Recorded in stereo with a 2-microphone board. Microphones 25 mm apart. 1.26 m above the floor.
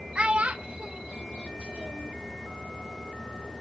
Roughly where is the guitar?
No guitar in this recording.